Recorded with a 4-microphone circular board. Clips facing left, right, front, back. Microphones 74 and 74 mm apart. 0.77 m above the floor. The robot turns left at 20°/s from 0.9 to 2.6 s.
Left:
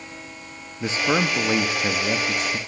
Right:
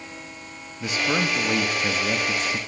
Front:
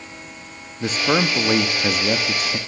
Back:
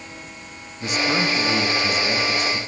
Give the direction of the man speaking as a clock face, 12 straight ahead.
11 o'clock.